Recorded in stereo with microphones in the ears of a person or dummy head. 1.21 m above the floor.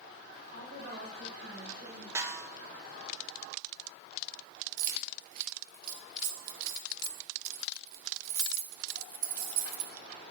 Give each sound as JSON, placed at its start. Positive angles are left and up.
{"t": 0.5, "sound": "a woman speaking", "side_deg": -60, "distance_m": 4.5}
{"t": 2.1, "sound": "a snare drum", "side_deg": -15, "distance_m": 0.6}
{"t": 4.8, "sound": "keys jangling", "side_deg": -55, "distance_m": 0.9}